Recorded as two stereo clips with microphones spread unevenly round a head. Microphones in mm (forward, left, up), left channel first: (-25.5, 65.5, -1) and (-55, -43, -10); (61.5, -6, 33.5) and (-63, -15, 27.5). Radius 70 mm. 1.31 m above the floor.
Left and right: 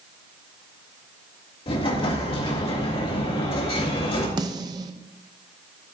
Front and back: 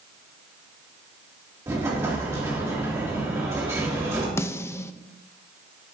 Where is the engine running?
No engine running in this recording.